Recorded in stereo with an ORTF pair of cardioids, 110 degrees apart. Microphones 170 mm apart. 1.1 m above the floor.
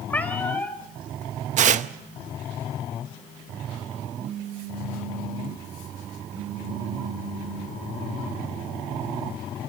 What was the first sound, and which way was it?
A cat meowing, 10° left.